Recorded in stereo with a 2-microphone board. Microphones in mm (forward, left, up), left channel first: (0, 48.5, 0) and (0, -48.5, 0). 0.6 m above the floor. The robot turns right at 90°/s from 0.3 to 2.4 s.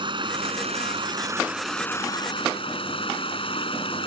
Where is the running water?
120° right; by 4.1 s 65° left.